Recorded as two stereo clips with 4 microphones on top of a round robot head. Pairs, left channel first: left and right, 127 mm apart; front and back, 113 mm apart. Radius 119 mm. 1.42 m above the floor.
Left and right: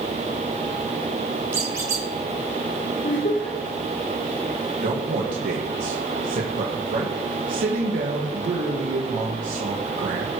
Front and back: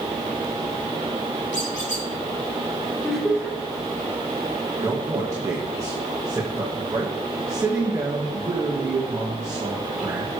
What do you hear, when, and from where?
1.5 s a squeak: 30° right, 1.3 m
3.0 s laughter: 90° left, 4.5 m
4.8 s a man speaking: 110° right, 1.6 m